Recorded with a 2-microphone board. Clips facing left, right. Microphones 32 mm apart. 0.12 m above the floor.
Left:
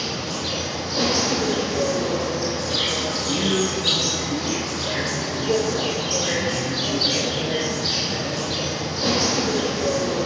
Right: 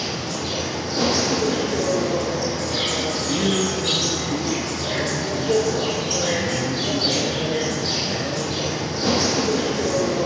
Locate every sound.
0.0 s an insect: 35° left (ahead or behind), 2 m
3.3 s a man speaking: centre (ahead or behind), 1.1 m